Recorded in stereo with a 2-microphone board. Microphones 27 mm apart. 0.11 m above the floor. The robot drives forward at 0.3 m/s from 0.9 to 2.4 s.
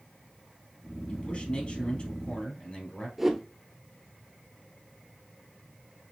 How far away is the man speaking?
About 2 m.